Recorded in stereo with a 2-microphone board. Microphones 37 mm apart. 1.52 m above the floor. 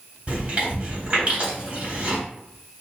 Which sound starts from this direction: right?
Chewing, at 0.3 s.